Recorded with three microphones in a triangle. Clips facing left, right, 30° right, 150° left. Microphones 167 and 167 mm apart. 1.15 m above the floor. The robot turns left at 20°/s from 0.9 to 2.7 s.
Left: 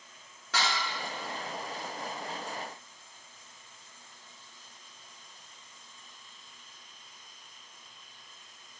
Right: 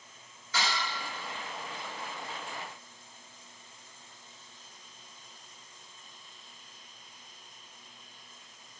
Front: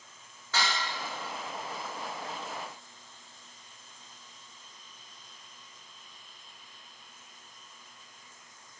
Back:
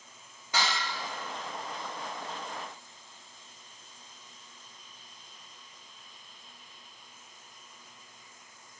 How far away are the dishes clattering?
About 1.3 m.